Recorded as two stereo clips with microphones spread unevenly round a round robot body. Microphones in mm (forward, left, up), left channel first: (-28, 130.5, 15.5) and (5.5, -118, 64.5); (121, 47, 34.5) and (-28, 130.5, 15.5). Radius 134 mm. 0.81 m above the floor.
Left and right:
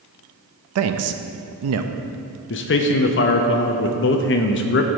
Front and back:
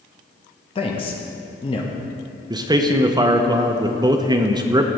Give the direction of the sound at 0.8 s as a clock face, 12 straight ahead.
3 o'clock.